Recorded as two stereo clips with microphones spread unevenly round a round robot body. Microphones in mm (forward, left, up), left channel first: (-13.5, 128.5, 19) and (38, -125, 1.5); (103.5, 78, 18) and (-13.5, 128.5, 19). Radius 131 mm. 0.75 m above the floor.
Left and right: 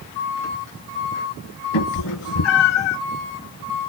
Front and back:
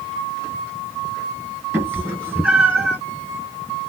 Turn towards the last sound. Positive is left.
turn(degrees=75)